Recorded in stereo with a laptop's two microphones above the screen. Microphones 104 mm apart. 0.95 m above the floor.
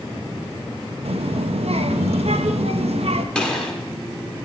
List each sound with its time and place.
1.1 s a child speaking: 75° right (ahead or behind), 0.7 m
3.4 s a gunshot: 10° left (ahead or behind), 1.2 m